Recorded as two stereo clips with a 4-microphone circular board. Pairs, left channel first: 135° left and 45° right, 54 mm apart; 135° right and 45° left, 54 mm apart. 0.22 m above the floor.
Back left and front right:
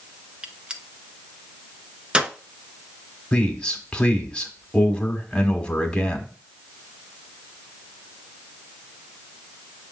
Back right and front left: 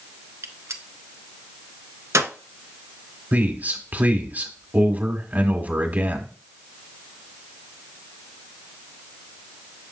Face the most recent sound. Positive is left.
turn(degrees=70)